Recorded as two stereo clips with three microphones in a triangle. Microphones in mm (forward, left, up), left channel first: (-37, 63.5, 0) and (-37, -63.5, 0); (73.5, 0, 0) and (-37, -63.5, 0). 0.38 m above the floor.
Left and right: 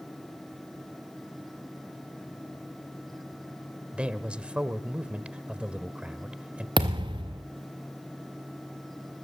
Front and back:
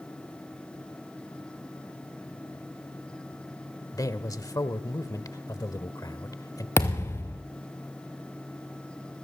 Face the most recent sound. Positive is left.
turn(degrees=-40)